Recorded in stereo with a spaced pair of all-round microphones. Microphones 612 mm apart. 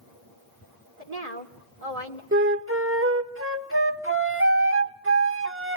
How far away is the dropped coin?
No dropped coin in this recording.